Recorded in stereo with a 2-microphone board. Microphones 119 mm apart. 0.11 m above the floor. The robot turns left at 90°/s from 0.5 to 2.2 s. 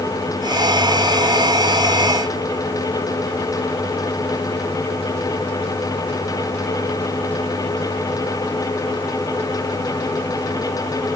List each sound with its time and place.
Only background noise.